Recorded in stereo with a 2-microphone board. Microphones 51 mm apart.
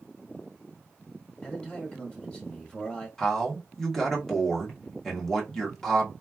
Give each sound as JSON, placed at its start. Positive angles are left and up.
{"t": 1.4, "sound": "a man speaking", "side_deg": 20, "distance_m": 0.9}
{"t": 3.2, "sound": "a man speaking", "side_deg": 5, "distance_m": 1.2}